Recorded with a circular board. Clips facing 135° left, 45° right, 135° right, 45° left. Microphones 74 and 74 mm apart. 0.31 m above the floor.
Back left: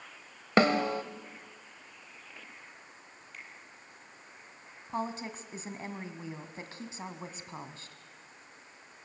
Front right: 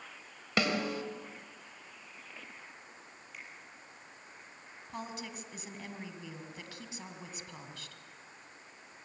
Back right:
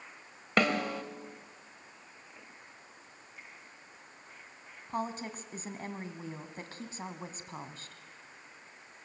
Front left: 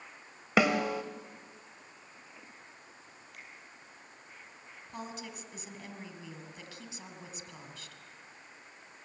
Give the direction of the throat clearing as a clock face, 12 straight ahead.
No throat clearing in this recording.